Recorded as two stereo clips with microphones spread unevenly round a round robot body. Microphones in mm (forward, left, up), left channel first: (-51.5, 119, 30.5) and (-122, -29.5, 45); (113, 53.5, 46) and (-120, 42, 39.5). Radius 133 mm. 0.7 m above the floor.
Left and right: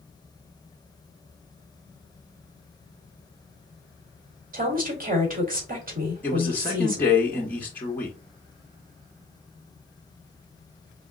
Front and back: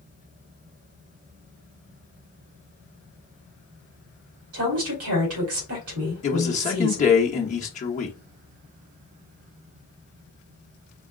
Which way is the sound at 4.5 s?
150° right.